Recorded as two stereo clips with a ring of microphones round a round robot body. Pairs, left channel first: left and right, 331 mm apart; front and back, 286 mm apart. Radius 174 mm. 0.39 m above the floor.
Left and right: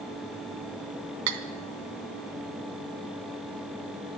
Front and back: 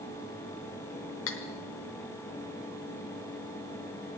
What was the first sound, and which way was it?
Cutlery clinking, 50° right.